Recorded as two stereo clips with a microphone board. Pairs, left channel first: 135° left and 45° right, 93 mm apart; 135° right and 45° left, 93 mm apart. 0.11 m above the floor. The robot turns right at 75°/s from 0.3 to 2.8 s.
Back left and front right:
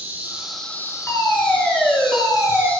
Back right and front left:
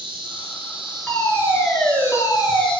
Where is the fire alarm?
150° left, 2 m; by 2.7 s 85° right, 2 m.